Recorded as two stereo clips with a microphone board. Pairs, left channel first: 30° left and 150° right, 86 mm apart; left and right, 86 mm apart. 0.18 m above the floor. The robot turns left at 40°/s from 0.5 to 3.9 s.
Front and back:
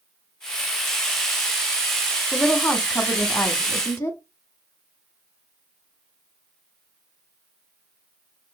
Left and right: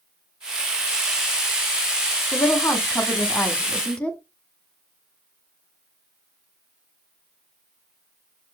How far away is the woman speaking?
About 1.3 m.